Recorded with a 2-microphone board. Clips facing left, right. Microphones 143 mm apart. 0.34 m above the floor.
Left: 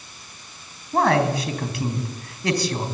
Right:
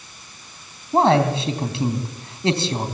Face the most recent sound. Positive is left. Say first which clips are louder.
# right 3 dB
turn(degrees=-25)  # may be behind; listen again after turning